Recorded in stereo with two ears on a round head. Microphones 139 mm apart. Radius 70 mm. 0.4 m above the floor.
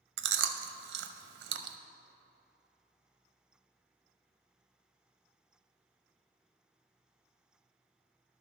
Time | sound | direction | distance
0.2 | chewing | 75° right (ahead or behind) | 0.6 m